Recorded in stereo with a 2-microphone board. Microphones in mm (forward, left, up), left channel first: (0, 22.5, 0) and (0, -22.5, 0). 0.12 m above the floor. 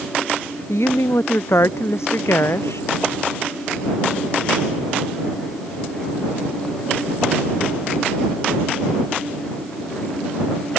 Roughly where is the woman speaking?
Left.